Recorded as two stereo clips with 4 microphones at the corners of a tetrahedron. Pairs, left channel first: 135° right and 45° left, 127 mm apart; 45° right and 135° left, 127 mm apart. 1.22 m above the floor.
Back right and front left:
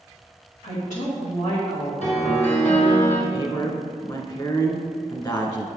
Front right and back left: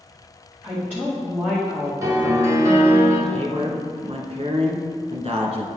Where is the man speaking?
170° left, 1.1 m.